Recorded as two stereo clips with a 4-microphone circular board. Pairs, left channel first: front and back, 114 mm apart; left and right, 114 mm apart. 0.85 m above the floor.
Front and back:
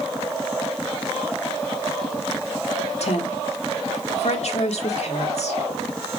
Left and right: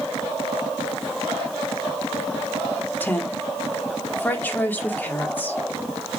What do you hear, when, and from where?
3.0 s a woman speaking: 15° left, 1.8 m